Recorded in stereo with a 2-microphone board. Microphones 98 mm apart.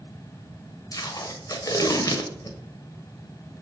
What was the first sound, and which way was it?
Tape being pulled, 40° left (ahead or behind).